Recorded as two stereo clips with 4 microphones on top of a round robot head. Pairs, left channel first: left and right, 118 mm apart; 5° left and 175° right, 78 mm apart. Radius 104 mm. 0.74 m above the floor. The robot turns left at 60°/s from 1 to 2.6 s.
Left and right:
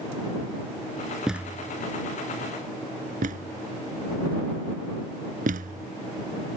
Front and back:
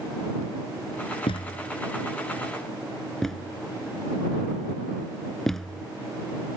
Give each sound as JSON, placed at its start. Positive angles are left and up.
{"t": 1.3, "sound": "a thud", "azimuth_deg": -5}